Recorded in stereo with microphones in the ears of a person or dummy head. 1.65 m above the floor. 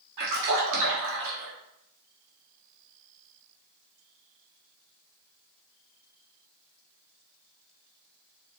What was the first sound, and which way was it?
A splash, 70° right (ahead or behind).